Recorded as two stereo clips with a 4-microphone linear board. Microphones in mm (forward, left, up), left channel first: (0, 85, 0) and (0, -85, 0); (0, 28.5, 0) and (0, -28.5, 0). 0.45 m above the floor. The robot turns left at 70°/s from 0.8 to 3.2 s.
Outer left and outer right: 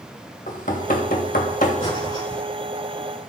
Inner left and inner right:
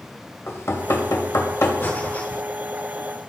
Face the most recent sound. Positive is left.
turn(degrees=-45)